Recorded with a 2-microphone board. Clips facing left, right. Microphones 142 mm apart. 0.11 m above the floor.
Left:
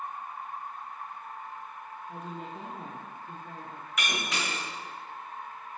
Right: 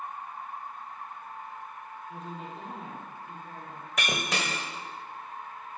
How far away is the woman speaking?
About 2.5 m.